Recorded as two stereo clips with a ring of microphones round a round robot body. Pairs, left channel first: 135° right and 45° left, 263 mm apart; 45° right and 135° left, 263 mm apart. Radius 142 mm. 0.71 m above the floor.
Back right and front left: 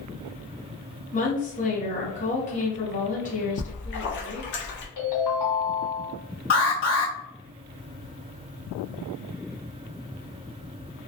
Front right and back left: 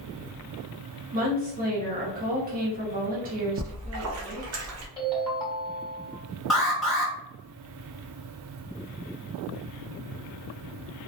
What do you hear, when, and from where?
1.1 s a woman speaking: 175° left, 1.1 m
3.6 s a splash: 175° left, 0.7 m
5.0 s a ringtone: 135° right, 1.6 m
6.5 s an alarm: 135° right, 1.7 m